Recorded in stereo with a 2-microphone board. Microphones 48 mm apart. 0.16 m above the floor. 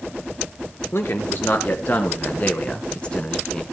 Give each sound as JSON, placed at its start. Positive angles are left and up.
{"t": 0.9, "sound": "a man speaking", "side_deg": 50, "distance_m": 2.5}